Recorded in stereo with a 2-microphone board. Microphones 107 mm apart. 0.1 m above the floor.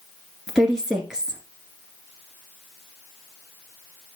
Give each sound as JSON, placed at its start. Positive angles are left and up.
{"t": 0.5, "sound": "a woman speaking", "side_deg": -5, "distance_m": 1.2}